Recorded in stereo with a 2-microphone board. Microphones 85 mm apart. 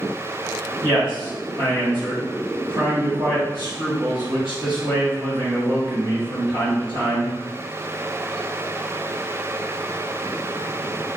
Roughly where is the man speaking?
Right.